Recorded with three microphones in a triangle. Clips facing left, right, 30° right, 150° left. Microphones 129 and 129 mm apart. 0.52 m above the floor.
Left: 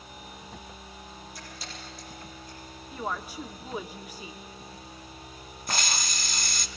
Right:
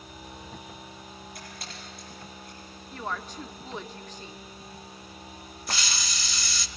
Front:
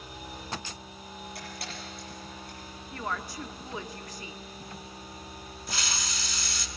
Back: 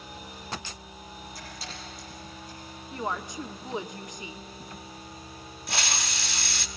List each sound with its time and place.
1.4 s a camera shutter: 55° right, 7 m
2.9 s a woman speaking: 150° left, 0.7 m
5.7 s a hiss: 130° left, 0.7 m